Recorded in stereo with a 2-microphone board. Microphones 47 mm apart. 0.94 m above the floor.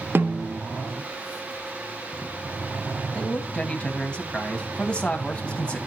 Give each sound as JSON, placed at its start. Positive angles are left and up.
{"t": 0.1, "sound": "a snare drum", "side_deg": -45, "distance_m": 0.8}
{"t": 3.1, "sound": "a man speaking", "side_deg": 25, "distance_m": 1.3}